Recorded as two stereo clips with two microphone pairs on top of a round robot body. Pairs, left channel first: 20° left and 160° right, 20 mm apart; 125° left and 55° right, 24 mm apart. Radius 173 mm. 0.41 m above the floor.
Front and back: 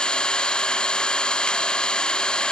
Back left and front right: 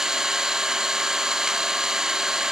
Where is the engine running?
10° left, 0.8 m.